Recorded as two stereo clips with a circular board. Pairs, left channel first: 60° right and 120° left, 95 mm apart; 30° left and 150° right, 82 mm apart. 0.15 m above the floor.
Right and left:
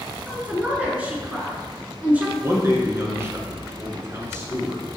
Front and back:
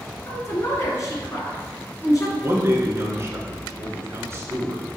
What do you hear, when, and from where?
0.3 s a woman speaking: 50° left, 1.8 m
2.4 s a man speaking: 170° left, 1.6 m